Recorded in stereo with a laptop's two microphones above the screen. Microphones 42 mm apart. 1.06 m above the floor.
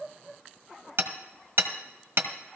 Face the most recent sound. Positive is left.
turn(degrees=-75)  # may be behind; listen again after turning